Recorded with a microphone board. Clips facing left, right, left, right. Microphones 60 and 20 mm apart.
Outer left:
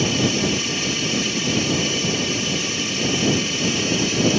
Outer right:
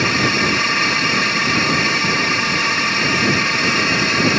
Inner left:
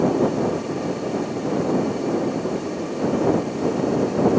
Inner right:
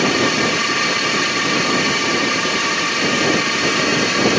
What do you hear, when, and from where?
0.0 s a drone: 60° right (ahead or behind)